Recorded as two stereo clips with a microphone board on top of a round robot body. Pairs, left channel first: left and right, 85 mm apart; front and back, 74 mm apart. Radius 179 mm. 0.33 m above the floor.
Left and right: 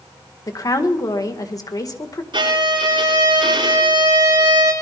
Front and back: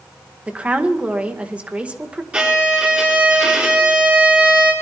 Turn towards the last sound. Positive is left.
turn(degrees=-105)